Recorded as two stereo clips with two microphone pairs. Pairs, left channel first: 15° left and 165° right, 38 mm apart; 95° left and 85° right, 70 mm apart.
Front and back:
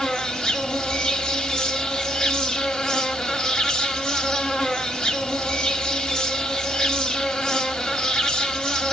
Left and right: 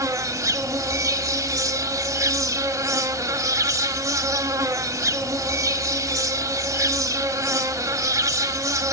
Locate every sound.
0.0 s an insect: 50° right, 1.1 m